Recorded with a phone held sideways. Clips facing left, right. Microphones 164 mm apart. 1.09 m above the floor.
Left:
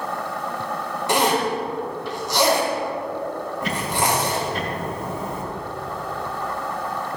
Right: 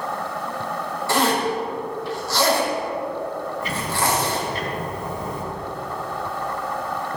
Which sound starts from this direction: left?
Ticking, at 3.6 s.